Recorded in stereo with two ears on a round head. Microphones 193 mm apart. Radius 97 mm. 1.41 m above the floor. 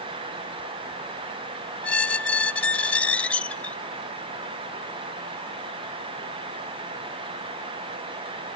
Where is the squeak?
5° left (ahead or behind), 0.6 m.